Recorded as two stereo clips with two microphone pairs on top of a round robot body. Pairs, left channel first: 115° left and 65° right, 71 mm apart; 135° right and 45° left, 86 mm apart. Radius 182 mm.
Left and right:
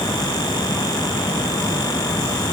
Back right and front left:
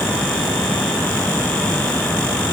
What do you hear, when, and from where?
Only background noise.